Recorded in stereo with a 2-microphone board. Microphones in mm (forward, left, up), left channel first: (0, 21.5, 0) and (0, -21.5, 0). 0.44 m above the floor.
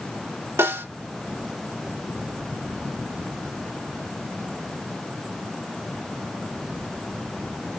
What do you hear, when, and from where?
0.6 s a snare drum: 85° right, 3 m